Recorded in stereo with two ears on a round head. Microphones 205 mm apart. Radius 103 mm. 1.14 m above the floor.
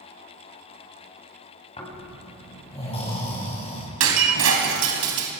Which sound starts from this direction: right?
Breaking glass, at 4.0 s.